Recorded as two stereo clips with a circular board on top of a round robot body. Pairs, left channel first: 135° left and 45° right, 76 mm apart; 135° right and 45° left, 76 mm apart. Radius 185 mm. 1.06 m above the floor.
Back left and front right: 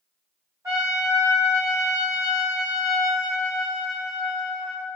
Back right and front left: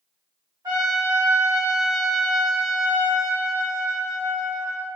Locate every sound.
0.6 s a trumpet: 10° left, 1.6 m